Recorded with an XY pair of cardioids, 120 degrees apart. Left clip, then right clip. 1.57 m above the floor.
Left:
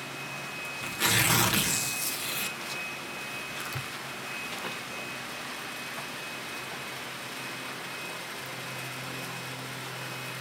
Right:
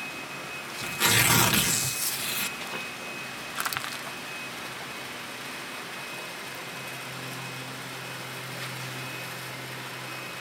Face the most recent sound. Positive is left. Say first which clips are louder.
# right 4 dB
turn(degrees=-60)